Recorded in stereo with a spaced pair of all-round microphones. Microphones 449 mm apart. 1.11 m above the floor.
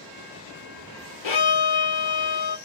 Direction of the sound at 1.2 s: 90° left.